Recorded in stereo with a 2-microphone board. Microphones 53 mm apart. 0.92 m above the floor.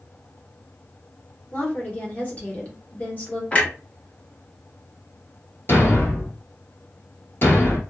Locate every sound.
1.5 s a woman speaking: 30° left (ahead or behind), 1.1 m
3.5 s a clunk: 25° left (ahead or behind), 0.8 m
5.7 s a thud: 45° left (ahead or behind), 1.2 m